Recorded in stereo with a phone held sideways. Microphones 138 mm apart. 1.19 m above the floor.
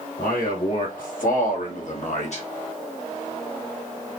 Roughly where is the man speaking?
Left.